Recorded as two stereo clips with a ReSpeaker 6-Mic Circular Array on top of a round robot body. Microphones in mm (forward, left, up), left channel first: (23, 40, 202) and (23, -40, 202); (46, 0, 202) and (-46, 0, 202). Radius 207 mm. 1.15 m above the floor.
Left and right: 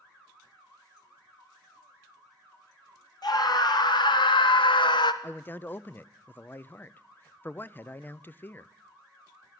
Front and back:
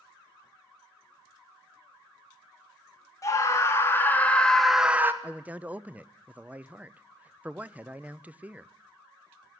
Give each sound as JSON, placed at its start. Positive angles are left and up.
{"t": 3.2, "sound": "a scream", "azimuth_deg": 55, "distance_m": 2.5}
{"t": 5.2, "sound": "a man speaking", "azimuth_deg": 125, "distance_m": 0.7}